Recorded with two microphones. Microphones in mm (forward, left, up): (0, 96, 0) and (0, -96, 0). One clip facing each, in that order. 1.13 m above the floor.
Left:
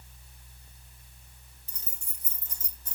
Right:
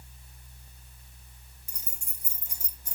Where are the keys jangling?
15° right (ahead or behind), 1.7 m.